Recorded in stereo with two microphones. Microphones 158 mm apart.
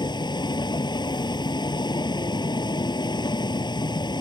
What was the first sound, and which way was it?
A vehicle, 25° left (ahead or behind).